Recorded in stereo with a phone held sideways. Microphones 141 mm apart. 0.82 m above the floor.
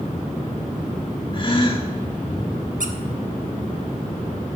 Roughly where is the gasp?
Left.